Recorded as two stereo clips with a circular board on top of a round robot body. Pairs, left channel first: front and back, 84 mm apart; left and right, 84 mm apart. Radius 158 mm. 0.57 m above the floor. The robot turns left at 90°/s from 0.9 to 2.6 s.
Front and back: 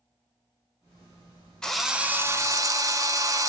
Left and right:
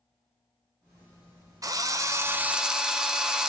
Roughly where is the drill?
Right.